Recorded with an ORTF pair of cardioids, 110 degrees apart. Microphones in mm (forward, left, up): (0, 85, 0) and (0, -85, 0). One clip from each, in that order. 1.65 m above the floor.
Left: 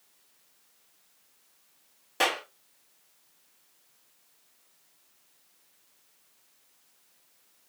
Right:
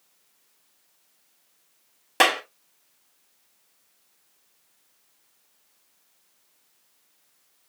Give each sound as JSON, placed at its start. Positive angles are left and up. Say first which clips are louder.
{"t": 2.2, "sound": "a clap", "louder": "right 7 dB", "azimuth_deg": -65, "distance_m": 2.5}